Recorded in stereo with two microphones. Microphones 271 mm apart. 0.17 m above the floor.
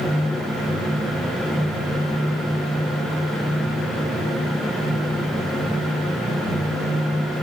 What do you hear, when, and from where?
Only background noise.